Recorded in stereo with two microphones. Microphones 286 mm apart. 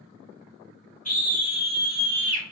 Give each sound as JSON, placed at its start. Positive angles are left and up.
{"t": 1.1, "sound": "a scream", "side_deg": 30, "distance_m": 1.7}